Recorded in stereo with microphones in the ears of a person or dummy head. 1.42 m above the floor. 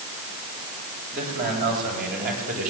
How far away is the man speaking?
About 9 m.